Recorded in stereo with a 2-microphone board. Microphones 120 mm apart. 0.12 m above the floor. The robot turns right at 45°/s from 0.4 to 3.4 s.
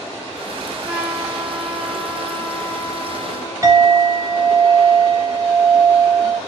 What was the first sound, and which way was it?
A trumpet, 15° right (ahead or behind).